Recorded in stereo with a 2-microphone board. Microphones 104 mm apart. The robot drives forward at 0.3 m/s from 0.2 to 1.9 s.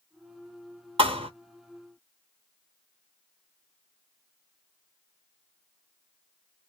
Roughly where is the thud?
Right.